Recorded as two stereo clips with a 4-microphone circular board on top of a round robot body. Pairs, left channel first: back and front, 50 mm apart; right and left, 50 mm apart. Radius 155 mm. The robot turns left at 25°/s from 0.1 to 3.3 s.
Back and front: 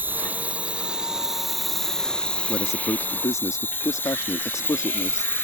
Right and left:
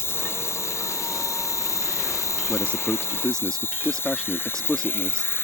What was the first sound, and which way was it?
An insect, 50° right.